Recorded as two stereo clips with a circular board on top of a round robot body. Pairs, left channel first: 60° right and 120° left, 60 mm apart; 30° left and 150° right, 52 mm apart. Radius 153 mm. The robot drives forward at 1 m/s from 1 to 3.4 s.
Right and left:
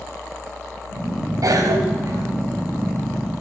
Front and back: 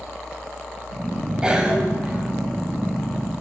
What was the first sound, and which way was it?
A cough, 140° left.